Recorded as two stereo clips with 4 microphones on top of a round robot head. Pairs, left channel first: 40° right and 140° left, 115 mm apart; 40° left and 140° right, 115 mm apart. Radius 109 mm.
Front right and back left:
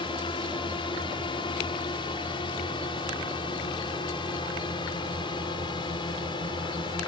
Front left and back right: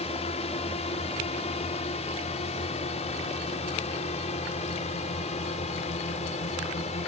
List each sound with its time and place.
0.0 s a drone: 5° left; by 7.1 s 10° left